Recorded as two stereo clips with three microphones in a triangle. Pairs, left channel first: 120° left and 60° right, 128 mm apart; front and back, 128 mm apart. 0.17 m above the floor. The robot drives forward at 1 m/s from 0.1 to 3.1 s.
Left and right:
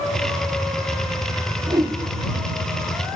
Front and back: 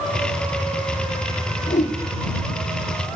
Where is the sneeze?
No sneeze in this recording.